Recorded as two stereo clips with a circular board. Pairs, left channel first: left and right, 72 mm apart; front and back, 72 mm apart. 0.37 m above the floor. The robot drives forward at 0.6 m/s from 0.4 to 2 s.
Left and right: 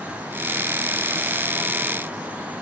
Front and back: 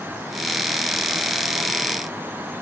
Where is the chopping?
I don't hear chopping.